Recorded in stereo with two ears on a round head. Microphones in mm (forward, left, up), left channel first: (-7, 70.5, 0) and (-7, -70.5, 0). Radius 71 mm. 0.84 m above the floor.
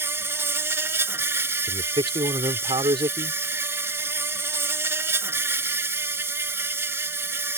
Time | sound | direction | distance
0.0 | an insect | 15° right (ahead or behind) | ?
1.7 | a man speaking | 30° right (ahead or behind) | ?